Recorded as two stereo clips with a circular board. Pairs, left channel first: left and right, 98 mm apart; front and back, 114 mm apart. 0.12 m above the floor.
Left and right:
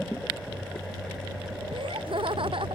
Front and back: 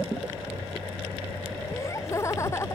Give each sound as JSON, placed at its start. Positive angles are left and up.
{"t": 1.7, "sound": "laughter", "azimuth_deg": -60}